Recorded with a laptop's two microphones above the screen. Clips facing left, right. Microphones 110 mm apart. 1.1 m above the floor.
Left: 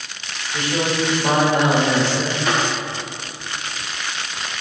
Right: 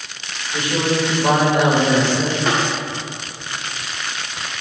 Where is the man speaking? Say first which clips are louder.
Right 2 dB; 20° right (ahead or behind), 4 m.